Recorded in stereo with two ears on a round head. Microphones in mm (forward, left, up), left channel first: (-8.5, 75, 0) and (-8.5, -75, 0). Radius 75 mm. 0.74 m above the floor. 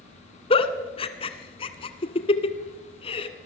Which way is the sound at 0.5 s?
35° left (ahead or behind).